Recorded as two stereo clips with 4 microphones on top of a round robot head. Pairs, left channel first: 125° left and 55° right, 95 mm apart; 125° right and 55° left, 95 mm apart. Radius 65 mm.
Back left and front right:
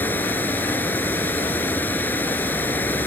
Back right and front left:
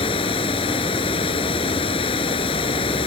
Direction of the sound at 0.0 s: 160° right.